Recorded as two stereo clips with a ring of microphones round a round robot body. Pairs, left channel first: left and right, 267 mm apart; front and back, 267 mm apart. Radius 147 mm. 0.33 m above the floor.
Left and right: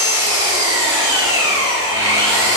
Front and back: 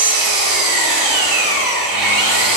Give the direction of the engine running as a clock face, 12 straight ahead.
6 o'clock.